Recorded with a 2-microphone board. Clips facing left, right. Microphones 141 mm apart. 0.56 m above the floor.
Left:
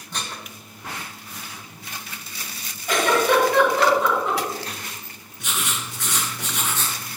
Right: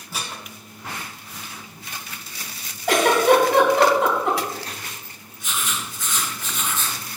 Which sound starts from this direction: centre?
Dishes clattering, at 0.1 s.